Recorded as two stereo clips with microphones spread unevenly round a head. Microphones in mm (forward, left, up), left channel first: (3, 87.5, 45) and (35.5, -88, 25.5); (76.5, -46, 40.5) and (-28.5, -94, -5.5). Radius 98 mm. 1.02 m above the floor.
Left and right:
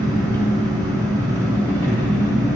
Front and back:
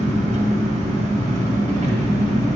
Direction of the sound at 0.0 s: Straight behind.